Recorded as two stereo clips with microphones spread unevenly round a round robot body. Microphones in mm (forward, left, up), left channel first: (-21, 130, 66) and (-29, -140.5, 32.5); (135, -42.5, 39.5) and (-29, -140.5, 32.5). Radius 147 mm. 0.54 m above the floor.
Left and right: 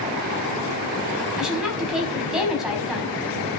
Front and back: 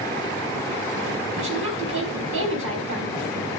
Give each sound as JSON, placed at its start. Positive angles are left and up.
{"t": 1.4, "sound": "a woman speaking", "azimuth_deg": 180, "distance_m": 4.5}